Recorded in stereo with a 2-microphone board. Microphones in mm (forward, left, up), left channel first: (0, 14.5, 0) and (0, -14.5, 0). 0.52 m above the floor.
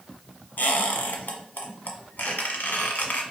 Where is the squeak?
85° left, 1.3 m.